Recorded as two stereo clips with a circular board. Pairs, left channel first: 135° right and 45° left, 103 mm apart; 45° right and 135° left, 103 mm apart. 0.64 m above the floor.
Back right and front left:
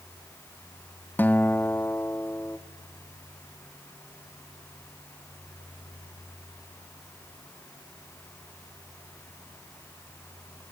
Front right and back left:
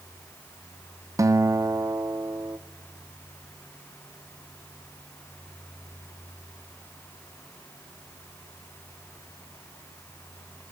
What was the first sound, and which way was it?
A guitar, 165° left.